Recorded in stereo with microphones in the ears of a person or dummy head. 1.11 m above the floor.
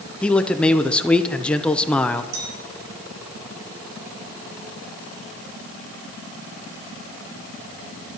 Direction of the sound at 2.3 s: 70° right (ahead or behind).